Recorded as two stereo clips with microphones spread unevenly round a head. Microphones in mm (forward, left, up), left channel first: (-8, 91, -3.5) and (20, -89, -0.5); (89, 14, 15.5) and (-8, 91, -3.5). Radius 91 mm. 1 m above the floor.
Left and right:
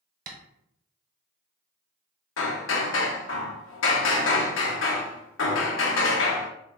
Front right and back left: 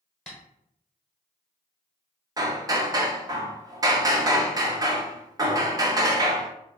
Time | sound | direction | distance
0.3 | tapping | 115° right | 1.0 m
2.4 | hammering | 85° left | 0.9 m